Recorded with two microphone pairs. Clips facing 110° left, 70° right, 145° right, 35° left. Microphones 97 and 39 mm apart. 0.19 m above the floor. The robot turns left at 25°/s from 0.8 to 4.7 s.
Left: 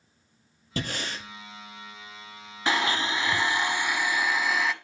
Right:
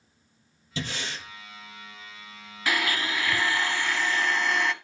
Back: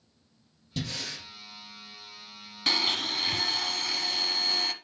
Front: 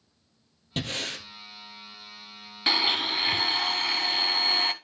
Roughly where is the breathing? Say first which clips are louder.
Left 2 dB, front 4 dB; left.